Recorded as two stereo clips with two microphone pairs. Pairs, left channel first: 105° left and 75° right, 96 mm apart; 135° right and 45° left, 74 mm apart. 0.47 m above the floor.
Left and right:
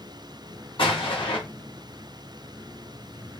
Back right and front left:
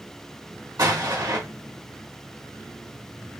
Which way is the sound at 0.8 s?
80° left.